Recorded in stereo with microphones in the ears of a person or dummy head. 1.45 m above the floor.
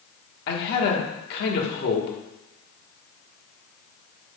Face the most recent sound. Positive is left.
turn(degrees=45)  # may be behind; listen again after turning